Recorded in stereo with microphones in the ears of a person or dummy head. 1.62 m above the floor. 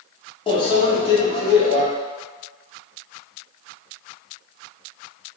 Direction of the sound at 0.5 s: 30° left (ahead or behind).